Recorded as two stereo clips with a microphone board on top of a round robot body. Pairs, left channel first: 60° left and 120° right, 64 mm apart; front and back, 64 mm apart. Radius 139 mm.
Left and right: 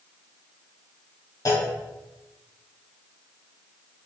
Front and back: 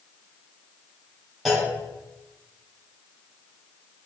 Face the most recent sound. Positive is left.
turn(degrees=90)